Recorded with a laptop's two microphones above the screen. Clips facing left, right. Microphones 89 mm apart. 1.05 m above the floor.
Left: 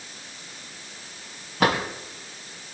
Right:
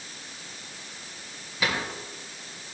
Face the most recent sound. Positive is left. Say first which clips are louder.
# left 7 dB
turn(degrees=55)  # may be behind; listen again after turning